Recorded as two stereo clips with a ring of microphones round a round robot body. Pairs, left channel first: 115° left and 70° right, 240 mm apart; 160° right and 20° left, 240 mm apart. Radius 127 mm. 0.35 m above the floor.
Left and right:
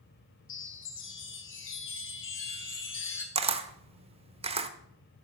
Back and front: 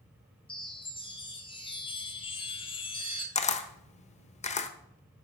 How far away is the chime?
About 2.5 m.